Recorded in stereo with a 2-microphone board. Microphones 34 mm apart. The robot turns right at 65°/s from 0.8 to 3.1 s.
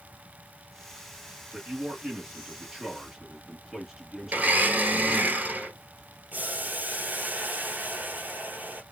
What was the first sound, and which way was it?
A man speaking, 125° right.